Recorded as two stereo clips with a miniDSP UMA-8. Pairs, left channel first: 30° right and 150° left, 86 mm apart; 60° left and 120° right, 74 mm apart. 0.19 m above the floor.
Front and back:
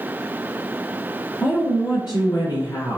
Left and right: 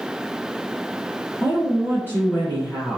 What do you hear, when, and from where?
1.4 s a woman speaking: straight ahead, 1.9 m